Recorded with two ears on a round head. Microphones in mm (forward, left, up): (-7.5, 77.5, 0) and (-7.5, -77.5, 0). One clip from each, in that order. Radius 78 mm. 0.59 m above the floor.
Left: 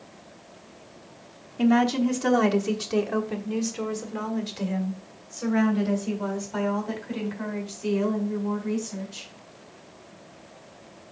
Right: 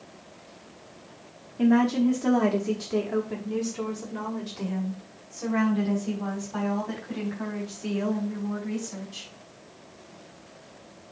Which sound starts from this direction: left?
A woman speaking, at 1.6 s.